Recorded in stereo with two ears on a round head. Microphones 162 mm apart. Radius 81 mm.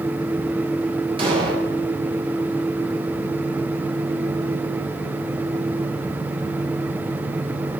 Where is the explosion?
30° right (ahead or behind), 5 m.